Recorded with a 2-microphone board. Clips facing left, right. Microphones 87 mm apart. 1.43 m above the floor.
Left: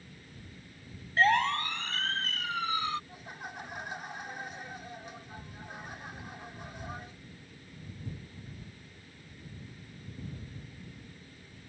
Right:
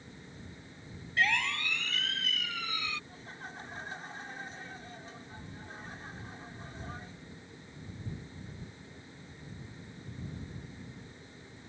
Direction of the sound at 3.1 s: 15° left (ahead or behind).